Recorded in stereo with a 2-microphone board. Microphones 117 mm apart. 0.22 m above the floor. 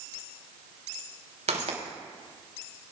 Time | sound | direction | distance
1.5 | footsteps | 75° right (ahead or behind) | 4.5 m